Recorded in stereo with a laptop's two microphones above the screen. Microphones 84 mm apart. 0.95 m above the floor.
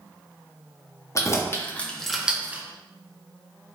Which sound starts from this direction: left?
Keys jangling, at 1.1 s.